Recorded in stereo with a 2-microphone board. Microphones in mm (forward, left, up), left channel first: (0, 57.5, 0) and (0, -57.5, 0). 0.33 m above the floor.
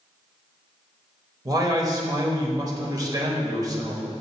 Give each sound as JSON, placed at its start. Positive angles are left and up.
{"t": 1.4, "sound": "a man speaking", "side_deg": -30, "distance_m": 1.0}